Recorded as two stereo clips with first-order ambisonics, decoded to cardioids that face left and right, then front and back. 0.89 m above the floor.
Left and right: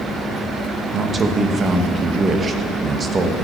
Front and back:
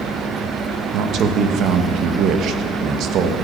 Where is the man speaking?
155° right, 0.8 m.